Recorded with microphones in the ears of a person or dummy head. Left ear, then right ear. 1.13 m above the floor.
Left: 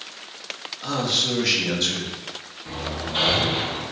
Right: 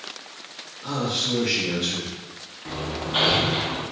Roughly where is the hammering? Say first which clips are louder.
Right 1 dB; right.